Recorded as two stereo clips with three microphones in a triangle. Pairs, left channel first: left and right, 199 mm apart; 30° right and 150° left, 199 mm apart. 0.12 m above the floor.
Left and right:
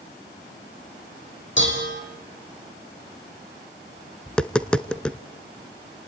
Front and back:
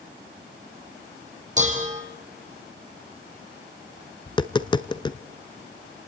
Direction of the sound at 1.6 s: 100° left.